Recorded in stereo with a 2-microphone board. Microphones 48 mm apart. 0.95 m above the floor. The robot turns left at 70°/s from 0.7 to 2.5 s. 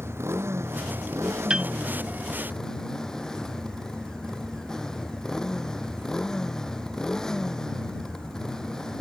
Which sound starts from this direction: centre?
A piano, at 1.5 s.